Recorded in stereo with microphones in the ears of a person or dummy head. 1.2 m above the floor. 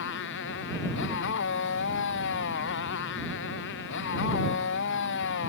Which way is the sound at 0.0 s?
65° left (ahead or behind).